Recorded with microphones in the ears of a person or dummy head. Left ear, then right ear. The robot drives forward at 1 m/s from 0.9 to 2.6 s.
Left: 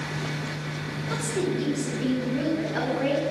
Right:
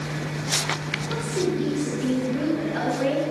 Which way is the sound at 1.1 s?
40° left (ahead or behind).